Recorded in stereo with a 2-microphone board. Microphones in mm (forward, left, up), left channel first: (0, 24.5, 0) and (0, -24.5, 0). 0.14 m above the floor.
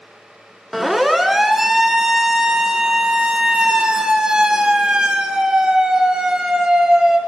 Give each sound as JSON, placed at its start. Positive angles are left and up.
{"t": 0.7, "sound": "a siren", "side_deg": -5, "distance_m": 2.5}